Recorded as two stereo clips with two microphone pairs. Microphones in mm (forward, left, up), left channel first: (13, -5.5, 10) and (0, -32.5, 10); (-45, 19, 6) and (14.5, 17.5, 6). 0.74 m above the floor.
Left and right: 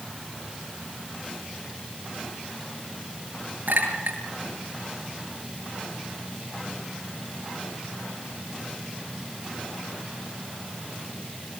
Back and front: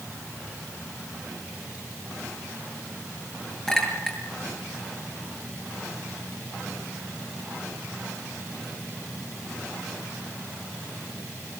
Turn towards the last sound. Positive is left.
turn(degrees=-100)